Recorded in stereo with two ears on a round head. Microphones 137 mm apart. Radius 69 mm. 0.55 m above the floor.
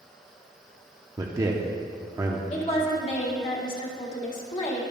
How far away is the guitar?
I don't hear a guitar.